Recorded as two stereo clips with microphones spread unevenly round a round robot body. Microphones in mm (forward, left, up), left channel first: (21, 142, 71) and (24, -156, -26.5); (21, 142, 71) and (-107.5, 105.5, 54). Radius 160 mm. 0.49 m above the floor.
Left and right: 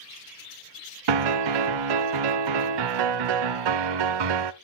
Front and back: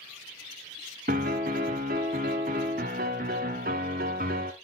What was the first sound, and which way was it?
A piano, 110° right.